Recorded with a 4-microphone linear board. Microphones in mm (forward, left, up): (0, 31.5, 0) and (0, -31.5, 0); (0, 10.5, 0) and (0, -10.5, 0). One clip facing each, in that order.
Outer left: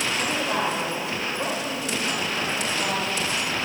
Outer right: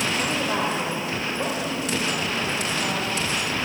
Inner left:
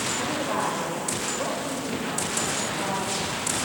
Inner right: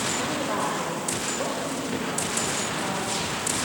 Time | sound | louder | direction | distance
0.2 | a woman speaking | even, even | 5° right (ahead or behind) | 4 m